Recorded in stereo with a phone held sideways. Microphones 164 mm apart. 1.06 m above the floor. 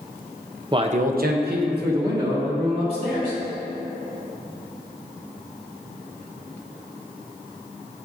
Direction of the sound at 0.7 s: 25° right (ahead or behind).